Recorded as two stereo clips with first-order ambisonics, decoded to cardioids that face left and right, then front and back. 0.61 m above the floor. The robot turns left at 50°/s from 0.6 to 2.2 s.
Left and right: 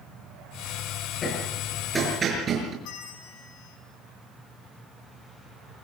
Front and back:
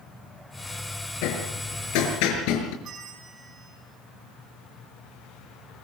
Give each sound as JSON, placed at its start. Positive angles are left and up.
{"t": 1.2, "sound": "hammering", "azimuth_deg": 25, "distance_m": 6.0}
{"t": 2.8, "sound": "a bell", "azimuth_deg": 125, "distance_m": 5.0}